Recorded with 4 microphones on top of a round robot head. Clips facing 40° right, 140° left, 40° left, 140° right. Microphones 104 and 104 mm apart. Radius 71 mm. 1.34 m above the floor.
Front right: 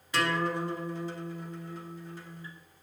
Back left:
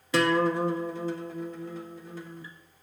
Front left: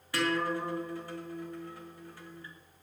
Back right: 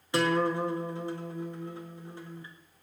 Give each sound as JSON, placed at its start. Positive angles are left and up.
{"t": 0.1, "sound": "a guitar", "azimuth_deg": 145, "distance_m": 1.8}